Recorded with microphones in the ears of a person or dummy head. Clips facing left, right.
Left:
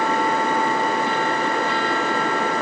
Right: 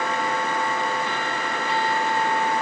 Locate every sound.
Only background noise.